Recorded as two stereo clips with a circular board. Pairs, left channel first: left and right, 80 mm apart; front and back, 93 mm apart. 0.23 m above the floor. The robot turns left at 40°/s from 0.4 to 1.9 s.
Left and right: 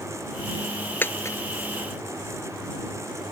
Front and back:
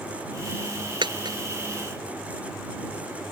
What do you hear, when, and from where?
1.0 s a dropped coin: 150° left; by 1.4 s 135° left